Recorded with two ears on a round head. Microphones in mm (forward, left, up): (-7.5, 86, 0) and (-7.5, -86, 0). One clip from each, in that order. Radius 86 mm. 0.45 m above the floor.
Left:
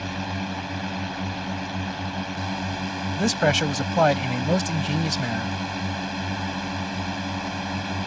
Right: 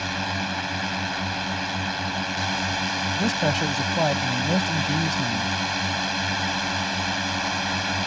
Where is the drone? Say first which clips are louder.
Right 4 dB; 50° right (ahead or behind).